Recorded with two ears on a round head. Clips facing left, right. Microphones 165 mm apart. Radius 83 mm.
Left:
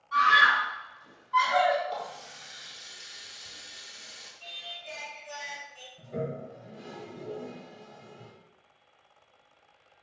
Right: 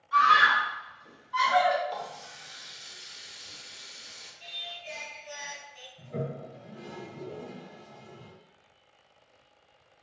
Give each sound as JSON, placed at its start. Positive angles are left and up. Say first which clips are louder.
{"t": 0.1, "sound": "a scream", "louder": "right 1 dB", "side_deg": -5, "distance_m": 1.5}
{"t": 1.9, "sound": "a running tap", "louder": "left 1 dB", "side_deg": 0, "distance_m": 0.7}
{"t": 4.4, "sound": "singing", "louder": "right 1 dB", "side_deg": -25, "distance_m": 1.5}
{"t": 6.0, "sound": "a toilet flushing", "louder": "left 1 dB", "side_deg": 20, "distance_m": 0.7}